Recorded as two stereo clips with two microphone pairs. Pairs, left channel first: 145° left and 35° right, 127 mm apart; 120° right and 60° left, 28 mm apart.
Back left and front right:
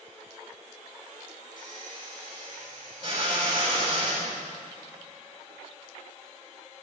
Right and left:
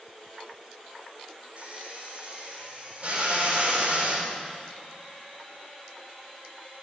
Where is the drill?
15° left, 5.5 m.